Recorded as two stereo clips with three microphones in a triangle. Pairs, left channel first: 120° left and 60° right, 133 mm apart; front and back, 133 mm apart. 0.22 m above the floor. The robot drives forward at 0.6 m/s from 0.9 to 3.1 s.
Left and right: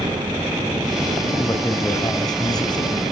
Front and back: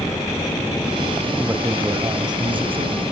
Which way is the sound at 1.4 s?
125° left.